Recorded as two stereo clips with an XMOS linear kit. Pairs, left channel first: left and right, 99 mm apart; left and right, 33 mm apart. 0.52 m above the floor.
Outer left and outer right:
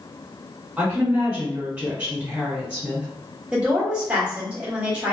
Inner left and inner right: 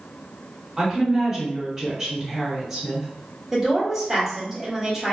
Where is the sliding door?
I don't hear a sliding door.